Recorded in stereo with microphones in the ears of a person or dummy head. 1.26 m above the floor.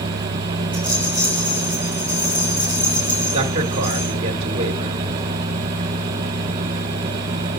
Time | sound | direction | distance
0.7 | a rattle | 25° left (ahead or behind) | 4 m
3.3 | a man speaking | 45° right (ahead or behind) | 1.3 m